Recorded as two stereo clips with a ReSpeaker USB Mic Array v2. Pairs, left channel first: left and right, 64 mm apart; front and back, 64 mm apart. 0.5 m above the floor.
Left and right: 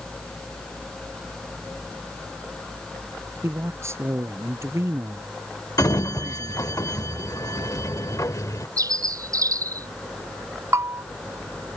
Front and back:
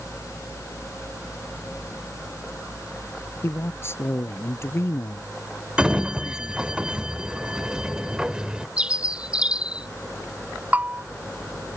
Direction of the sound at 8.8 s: 105° right.